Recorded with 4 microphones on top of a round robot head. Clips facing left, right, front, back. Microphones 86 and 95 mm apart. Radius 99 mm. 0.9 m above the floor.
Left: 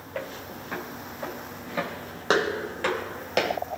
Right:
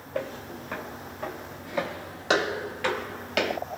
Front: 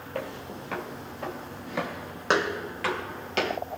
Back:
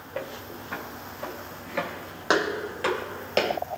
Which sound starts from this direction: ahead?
Footsteps, at 0.1 s.